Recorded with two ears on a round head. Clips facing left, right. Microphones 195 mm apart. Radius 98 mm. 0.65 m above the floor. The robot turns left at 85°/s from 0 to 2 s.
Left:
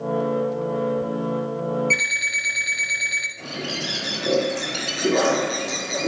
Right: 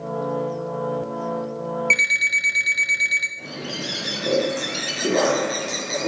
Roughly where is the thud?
No thud in this recording.